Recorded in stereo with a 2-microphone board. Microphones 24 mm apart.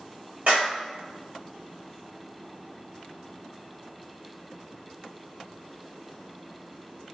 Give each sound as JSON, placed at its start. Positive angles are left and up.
{"t": 0.5, "sound": "a clap", "side_deg": -70, "distance_m": 4.0}